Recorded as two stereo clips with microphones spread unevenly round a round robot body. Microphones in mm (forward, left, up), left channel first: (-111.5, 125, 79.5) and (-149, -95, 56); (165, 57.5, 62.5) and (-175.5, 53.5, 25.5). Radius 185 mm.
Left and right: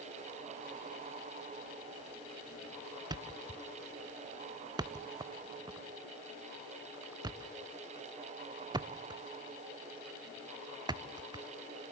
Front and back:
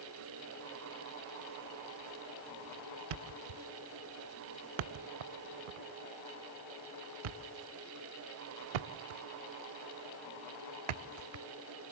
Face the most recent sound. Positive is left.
turn(degrees=-175)